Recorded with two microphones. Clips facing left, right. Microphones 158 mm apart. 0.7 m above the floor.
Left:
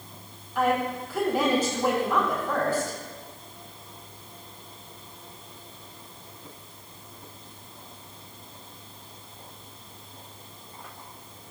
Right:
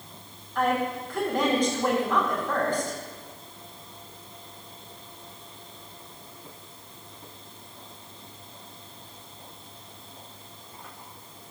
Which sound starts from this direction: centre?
A woman speaking, at 0.6 s.